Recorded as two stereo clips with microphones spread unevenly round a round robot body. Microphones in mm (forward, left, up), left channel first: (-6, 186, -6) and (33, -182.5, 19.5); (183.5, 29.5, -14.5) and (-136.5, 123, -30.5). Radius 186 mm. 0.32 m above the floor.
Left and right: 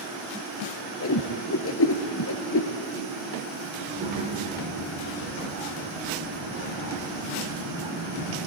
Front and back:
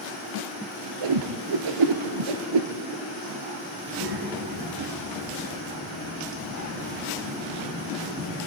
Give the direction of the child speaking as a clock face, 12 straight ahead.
5 o'clock.